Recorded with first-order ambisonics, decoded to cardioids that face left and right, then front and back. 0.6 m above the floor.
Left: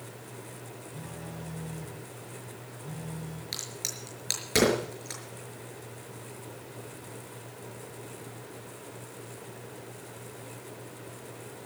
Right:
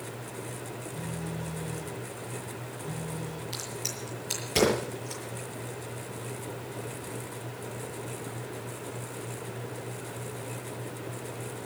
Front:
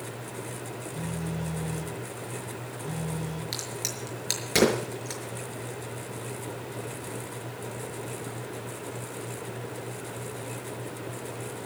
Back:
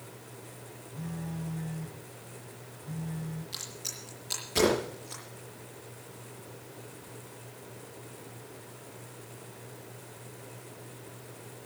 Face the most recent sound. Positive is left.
turn(degrees=40)